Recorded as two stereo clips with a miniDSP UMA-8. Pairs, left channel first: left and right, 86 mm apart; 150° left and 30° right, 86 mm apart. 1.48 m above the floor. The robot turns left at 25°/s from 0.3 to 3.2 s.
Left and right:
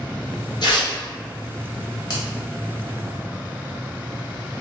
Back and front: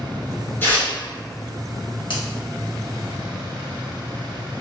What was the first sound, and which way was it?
Tearing paper, 90° left.